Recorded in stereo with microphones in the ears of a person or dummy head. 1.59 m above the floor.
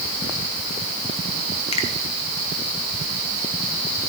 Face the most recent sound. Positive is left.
turn(degrees=35)  # may be behind; listen again after turning